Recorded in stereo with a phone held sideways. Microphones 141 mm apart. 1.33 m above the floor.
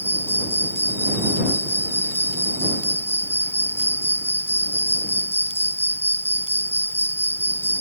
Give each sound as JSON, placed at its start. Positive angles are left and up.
{"t": 0.0, "sound": "an insect", "side_deg": 15}